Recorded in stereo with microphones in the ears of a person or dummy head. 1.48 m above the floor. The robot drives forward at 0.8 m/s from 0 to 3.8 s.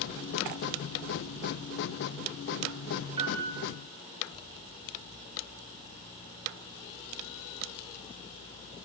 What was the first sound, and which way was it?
A piano, 25° right (ahead or behind).